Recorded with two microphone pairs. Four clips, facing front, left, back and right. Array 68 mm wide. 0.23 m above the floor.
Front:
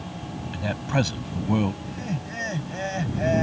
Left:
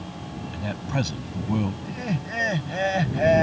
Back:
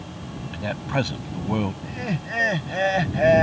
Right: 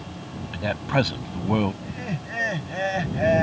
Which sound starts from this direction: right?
A man speaking, at 0.5 s.